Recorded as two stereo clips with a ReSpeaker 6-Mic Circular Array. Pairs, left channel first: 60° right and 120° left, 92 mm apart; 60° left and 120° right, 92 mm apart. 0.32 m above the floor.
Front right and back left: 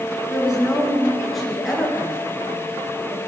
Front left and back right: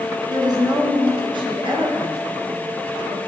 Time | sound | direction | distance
0.3 | a woman speaking | 160° right | 4 m